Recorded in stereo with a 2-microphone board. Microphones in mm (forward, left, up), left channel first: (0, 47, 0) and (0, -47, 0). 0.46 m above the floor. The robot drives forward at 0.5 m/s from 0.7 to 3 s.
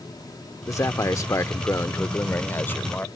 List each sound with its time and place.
0.7 s a man speaking: 35° left (ahead or behind); by 3.1 s 20° left (ahead or behind)